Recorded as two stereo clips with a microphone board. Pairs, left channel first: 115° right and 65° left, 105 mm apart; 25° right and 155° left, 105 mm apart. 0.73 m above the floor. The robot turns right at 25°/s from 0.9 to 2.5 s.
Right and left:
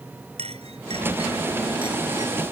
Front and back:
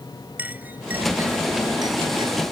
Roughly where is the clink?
Left.